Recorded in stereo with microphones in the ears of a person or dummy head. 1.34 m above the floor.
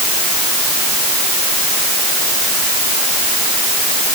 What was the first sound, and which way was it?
Only background noise.